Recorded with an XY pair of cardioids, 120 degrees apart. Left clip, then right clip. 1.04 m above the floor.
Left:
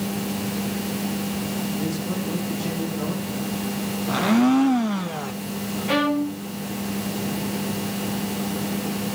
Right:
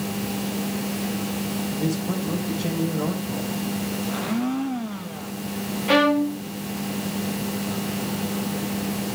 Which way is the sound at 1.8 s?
25° right.